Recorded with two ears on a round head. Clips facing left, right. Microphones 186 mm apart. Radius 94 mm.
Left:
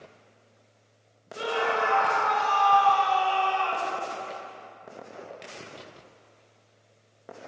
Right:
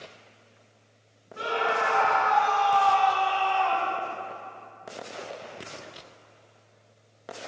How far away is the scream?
About 2.5 m.